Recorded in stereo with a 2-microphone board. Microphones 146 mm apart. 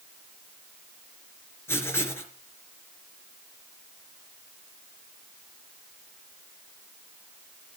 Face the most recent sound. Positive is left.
turn(degrees=15)  # may be behind; listen again after turning